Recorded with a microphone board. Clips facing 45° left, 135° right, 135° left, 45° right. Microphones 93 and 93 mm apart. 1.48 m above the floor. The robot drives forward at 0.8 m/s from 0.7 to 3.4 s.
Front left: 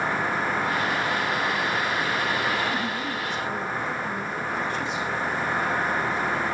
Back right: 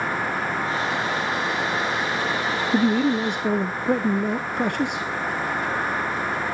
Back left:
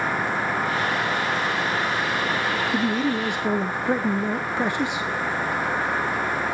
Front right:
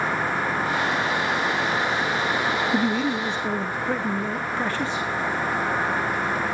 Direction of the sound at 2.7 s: 125° right.